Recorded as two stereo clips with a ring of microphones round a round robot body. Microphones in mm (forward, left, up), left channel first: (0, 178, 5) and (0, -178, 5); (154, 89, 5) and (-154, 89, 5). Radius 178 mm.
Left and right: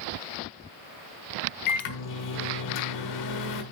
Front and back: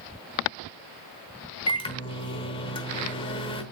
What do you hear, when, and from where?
1.7 s a microwave: 70° left, 1.1 m